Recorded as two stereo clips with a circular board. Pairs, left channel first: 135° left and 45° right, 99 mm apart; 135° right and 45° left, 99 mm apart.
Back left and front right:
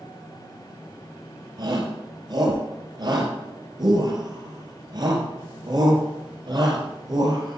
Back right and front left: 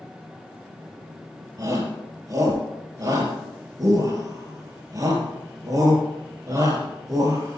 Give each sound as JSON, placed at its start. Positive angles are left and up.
{"t": 1.6, "sound": "a shout", "azimuth_deg": -5, "distance_m": 4.0}